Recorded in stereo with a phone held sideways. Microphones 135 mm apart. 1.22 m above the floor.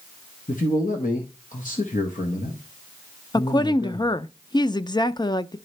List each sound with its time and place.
0.5 s a man speaking: 80° left, 1.1 m
3.3 s a woman speaking: 35° left (ahead or behind), 0.5 m